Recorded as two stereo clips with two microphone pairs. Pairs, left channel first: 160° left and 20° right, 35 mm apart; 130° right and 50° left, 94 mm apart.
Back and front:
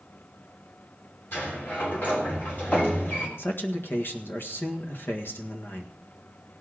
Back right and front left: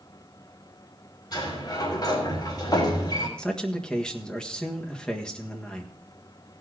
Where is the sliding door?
175° right, 3.5 m.